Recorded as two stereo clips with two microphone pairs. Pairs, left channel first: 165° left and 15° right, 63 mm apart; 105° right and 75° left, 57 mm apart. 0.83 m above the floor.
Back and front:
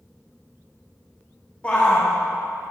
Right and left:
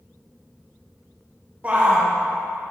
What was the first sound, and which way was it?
A shout, 110° left.